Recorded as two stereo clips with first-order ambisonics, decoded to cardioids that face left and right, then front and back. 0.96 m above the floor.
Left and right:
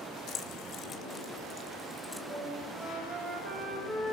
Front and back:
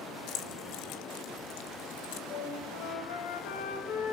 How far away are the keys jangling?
About 2.0 m.